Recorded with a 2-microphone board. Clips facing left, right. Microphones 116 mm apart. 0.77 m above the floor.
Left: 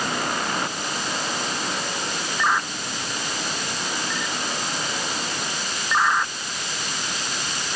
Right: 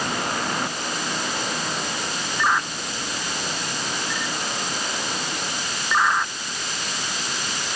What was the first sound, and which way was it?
Only background noise.